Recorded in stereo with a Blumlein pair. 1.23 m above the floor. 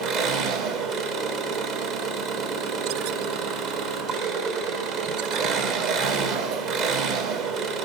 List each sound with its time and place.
0.0 s an engine running: 35° right, 0.7 m